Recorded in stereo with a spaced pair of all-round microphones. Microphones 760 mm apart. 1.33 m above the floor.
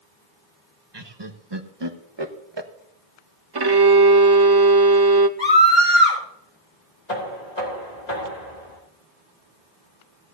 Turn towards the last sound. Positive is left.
turn(degrees=60)  # may be behind; listen again after turning